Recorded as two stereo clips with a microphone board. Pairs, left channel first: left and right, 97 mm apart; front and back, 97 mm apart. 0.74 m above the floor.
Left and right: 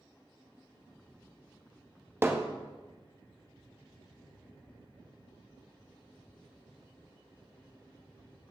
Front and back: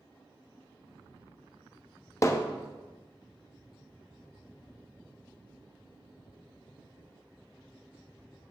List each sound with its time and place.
2.2 s hammering: 35° right, 0.7 m